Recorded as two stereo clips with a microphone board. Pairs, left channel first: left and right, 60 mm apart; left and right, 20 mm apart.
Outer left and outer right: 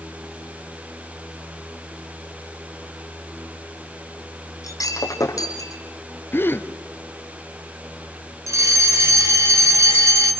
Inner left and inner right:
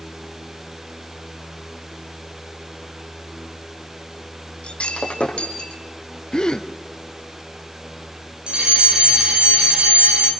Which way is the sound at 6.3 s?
35° left (ahead or behind).